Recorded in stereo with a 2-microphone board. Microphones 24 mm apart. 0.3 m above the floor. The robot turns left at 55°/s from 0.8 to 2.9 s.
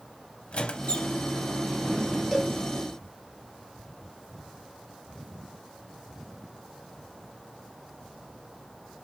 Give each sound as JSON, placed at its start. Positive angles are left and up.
{"t": 0.5, "sound": "a squeak", "side_deg": 45, "distance_m": 0.5}
{"t": 2.3, "sound": "a cowbell", "side_deg": 0, "distance_m": 0.9}